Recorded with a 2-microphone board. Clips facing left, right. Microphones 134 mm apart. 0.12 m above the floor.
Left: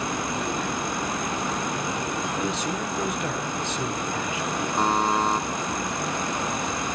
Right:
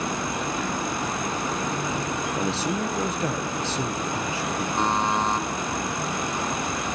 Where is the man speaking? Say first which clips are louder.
Right 2 dB; 30° right (ahead or behind), 2.0 m.